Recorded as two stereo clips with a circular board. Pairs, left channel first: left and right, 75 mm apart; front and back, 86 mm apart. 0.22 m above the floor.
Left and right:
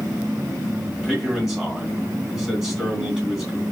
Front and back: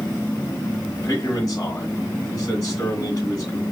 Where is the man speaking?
15° right, 1.8 m.